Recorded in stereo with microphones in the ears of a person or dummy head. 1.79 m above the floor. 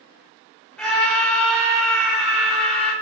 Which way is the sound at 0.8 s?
5° left (ahead or behind).